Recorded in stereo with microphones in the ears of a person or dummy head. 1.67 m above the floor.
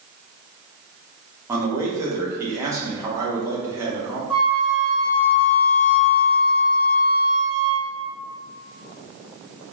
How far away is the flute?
About 0.9 m.